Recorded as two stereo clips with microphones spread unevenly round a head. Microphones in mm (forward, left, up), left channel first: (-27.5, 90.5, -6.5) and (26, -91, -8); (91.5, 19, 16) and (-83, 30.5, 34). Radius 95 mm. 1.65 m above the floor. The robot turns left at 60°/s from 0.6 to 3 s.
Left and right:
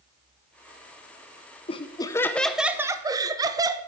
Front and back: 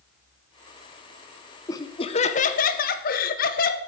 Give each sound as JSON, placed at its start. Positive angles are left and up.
{"t": 1.7, "sound": "laughter", "azimuth_deg": 65, "distance_m": 0.6}